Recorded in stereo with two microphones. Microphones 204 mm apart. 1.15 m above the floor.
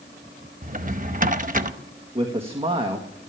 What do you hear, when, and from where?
0.6 s a drawer: 40° right (ahead or behind), 0.8 m
2.1 s a man speaking: 25° right (ahead or behind), 1.5 m